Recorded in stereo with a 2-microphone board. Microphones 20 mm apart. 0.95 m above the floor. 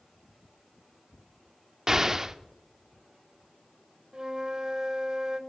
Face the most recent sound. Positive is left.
turn(degrees=-35)  # may be behind; listen again after turning